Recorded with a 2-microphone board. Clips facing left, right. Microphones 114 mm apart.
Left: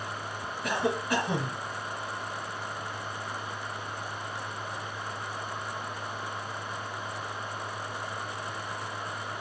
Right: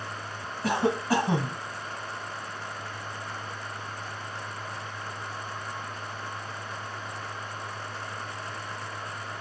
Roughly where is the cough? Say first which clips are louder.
Right 4 dB; right.